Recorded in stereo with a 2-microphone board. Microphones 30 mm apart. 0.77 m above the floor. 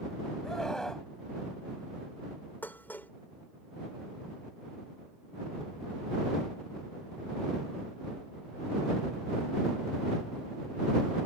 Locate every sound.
0.4 s a scream: 15° left (ahead or behind)
2.6 s dishes clattering: 85° left